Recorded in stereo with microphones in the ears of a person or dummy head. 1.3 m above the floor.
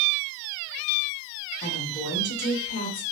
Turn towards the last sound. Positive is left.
turn(degrees=35)  # may be behind; listen again after turning